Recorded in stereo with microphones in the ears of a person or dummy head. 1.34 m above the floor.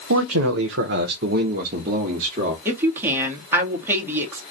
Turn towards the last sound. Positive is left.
turn(degrees=-15)  # may be behind; listen again after turning